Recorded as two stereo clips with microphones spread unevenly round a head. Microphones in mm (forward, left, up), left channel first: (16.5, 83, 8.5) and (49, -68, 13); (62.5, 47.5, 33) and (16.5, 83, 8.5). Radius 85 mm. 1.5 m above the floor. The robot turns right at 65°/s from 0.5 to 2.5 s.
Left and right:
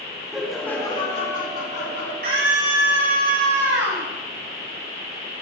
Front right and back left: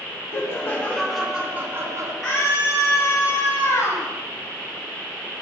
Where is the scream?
120° right, 9.5 m; by 4.1 s 105° right, 9.5 m.